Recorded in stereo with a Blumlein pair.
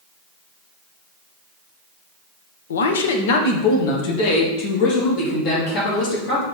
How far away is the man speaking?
About 1.0 m.